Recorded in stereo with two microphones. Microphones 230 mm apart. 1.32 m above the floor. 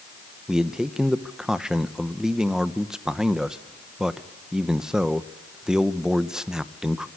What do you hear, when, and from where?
0.5 s a man speaking: 5° right (ahead or behind), 1.1 m